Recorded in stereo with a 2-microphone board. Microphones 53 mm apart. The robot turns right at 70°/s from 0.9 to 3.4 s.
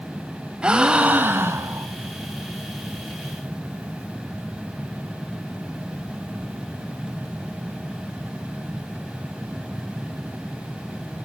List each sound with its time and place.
0.6 s a gasp: 160° right, 0.6 m; by 1.9 s 90° right, 0.6 m